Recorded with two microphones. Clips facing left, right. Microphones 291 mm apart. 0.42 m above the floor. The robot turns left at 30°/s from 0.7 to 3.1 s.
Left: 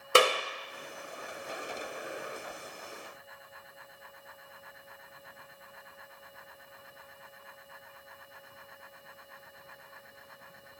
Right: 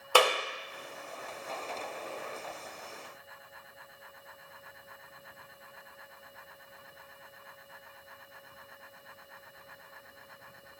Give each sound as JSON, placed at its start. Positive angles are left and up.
{"t": 0.1, "sound": "a clap", "side_deg": 25, "distance_m": 1.0}